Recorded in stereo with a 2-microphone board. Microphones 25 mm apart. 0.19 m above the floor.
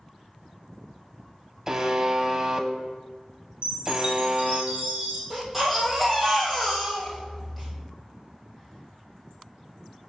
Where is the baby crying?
5° right (ahead or behind), 2.5 m.